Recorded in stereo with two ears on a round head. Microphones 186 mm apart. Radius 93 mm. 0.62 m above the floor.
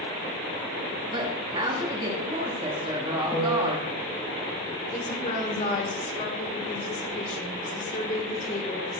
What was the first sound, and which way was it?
A woman speaking, 25° right (ahead or behind).